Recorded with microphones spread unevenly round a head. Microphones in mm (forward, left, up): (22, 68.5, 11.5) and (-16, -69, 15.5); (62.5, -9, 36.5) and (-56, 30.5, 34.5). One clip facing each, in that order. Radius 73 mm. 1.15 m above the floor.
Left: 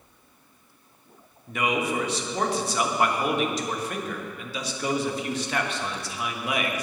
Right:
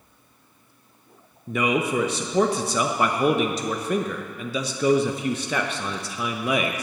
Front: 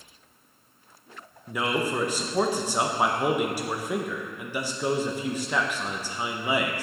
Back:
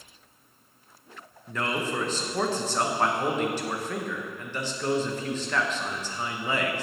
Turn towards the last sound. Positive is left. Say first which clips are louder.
# right 3 dB, front 3 dB
turn(degrees=-100)